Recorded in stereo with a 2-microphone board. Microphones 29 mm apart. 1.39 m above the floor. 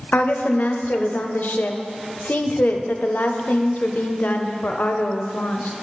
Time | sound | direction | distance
0.1 | a woman speaking | 80° left | 0.5 m